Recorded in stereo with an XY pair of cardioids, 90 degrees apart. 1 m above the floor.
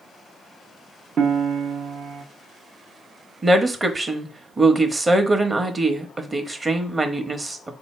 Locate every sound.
1.2 s a piano: 60° right, 0.7 m
3.4 s a woman speaking: 30° right, 0.9 m